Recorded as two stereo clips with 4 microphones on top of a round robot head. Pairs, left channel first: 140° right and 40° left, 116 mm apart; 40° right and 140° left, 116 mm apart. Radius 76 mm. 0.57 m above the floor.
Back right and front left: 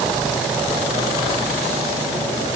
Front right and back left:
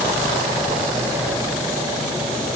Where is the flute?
No flute in this recording.